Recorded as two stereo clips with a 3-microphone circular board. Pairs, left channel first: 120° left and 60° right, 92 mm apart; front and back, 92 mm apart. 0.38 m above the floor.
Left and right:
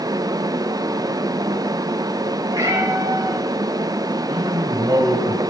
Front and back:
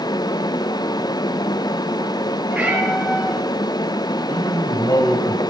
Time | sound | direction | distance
2.5 | a cat meowing | 100° right | 5 m
4.3 | a man speaking | 35° right | 2.5 m